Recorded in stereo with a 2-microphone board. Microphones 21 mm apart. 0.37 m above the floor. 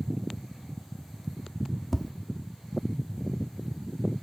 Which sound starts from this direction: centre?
Tapping, at 1.9 s.